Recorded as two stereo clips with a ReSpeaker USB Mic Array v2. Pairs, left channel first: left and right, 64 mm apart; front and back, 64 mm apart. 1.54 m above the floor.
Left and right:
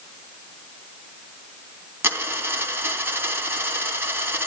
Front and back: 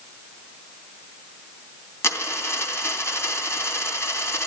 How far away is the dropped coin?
About 2.5 m.